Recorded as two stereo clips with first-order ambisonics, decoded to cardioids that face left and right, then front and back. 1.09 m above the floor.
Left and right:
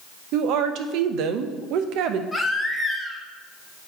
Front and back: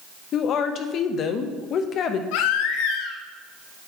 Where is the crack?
No crack in this recording.